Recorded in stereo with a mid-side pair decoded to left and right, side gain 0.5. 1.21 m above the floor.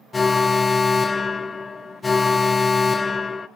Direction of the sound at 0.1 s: 25° left.